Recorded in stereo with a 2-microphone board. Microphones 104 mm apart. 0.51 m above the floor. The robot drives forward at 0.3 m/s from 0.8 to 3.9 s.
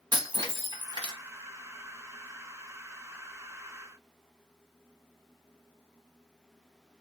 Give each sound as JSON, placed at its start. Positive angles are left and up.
{"t": 0.1, "sound": "breaking glass", "side_deg": -45, "distance_m": 2.0}